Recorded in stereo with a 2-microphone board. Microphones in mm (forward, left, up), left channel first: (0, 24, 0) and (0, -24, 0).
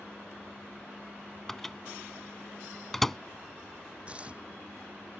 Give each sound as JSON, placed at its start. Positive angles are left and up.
{"t": 1.5, "sound": "a microwave", "side_deg": 5}
{"t": 4.1, "sound": "tearing paper", "side_deg": -25}